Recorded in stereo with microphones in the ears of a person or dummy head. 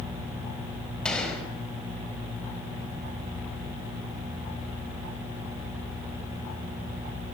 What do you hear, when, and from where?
1.1 s a gunshot: 5° left (ahead or behind), 5.5 m